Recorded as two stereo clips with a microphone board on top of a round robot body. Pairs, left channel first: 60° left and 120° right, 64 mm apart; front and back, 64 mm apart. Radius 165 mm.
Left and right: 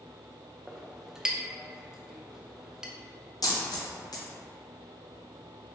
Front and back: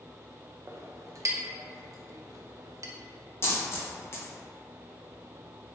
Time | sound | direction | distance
0.7 | a clink | 160° left | 0.5 m
3.4 | a dropped coin | 50° left | 0.7 m